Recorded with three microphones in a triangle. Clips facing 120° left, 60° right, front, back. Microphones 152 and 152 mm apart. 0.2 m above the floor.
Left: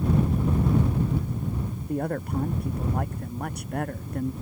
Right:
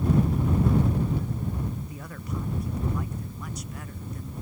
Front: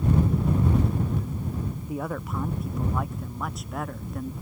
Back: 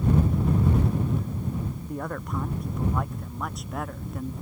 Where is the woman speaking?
85° left; by 4.3 s 90° left.